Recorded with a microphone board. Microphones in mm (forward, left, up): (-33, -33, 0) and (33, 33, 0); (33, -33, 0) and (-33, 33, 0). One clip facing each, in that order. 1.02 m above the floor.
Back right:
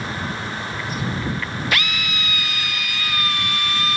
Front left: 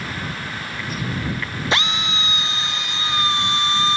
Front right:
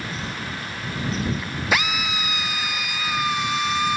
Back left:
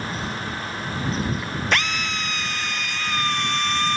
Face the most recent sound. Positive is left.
turn(degrees=30)